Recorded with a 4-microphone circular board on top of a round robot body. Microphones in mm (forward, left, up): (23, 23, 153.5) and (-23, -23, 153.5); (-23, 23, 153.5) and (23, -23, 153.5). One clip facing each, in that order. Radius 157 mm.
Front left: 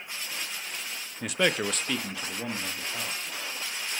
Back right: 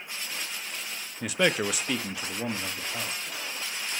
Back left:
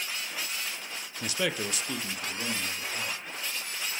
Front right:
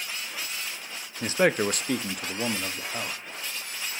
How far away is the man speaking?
About 0.5 m.